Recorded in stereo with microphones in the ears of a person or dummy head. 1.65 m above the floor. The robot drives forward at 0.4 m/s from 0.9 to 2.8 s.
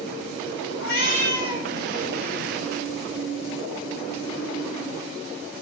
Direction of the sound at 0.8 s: 70° left (ahead or behind).